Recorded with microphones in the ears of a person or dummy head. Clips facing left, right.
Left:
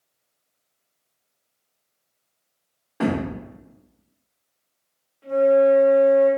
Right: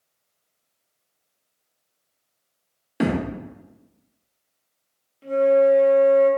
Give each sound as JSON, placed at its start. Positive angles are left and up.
{"t": 3.0, "sound": "a thud", "side_deg": -30, "distance_m": 0.7}
{"t": 5.2, "sound": "a flute", "side_deg": -35, "distance_m": 0.8}